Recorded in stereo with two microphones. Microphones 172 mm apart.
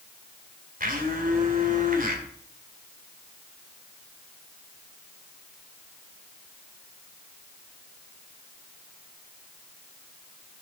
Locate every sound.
0.8 s a blender: 55° right (ahead or behind), 2 m